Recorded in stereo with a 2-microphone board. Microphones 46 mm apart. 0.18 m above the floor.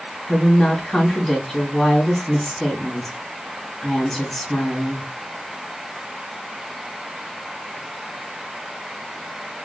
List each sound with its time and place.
0.3 s a woman speaking: 5° left (ahead or behind), 1.7 m